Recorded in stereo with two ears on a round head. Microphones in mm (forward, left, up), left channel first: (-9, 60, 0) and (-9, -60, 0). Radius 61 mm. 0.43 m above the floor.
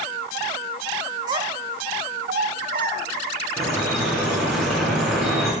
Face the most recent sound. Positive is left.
turn(degrees=0)  # may be behind; listen again after turning